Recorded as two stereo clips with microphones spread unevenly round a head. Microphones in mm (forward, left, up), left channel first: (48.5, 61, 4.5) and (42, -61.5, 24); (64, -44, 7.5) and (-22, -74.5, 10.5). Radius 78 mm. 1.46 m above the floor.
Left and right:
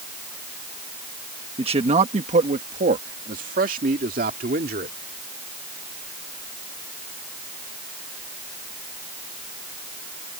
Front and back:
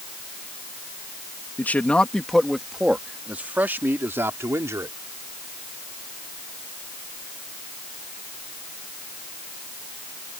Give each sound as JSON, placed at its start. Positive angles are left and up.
{"t": 1.6, "sound": "a man speaking", "azimuth_deg": -50}